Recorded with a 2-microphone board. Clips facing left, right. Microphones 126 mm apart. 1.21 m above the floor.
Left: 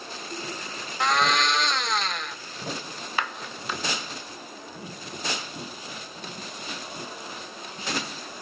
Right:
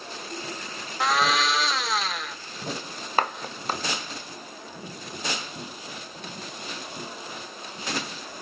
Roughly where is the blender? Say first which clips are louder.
Even; centre.